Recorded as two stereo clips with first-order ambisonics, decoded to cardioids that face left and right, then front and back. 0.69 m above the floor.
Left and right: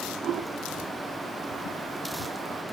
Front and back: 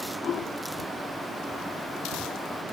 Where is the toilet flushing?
50° right, 1.8 m.